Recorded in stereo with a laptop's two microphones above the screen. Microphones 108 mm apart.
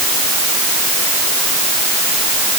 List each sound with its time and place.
Only background noise.